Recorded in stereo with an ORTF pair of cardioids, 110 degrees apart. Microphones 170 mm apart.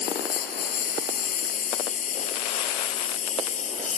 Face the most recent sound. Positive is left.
turn(degrees=45)